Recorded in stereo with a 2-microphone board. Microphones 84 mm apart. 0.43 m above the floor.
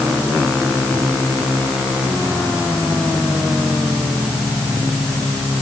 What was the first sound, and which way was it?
Only background noise.